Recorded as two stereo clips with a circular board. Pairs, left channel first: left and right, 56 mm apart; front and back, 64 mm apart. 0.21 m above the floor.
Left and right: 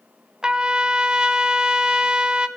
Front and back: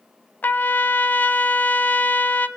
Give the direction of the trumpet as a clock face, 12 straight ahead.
1 o'clock.